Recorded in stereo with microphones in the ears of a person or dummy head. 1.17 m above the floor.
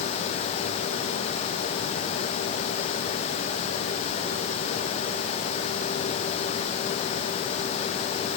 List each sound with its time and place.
Only background noise.